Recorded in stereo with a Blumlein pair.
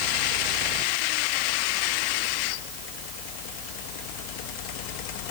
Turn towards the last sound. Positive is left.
No sound to turn to.